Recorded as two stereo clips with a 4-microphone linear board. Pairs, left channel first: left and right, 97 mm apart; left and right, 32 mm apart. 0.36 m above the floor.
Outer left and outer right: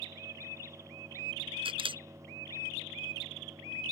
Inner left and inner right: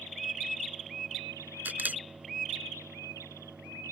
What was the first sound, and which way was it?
A camera shutter, 70° right (ahead or behind).